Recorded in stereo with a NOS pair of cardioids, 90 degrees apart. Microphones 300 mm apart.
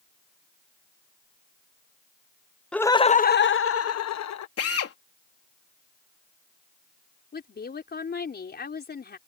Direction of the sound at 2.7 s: 5° left.